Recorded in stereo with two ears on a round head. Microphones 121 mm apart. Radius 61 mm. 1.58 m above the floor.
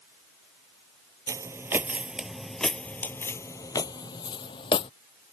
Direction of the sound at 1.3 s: 25° right (ahead or behind).